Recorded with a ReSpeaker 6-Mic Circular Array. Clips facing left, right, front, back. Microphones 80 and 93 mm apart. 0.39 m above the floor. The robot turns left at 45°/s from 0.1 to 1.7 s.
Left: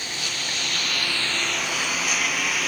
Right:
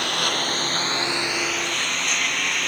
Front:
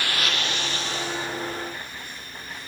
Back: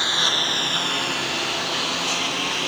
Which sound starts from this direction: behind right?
A lawn mower, at 0.0 s.